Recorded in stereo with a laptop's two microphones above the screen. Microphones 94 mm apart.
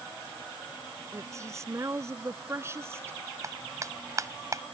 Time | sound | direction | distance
1.1 | a woman speaking | 35° right (ahead or behind) | ?
3.4 | a clap | 35° right (ahead or behind) | ?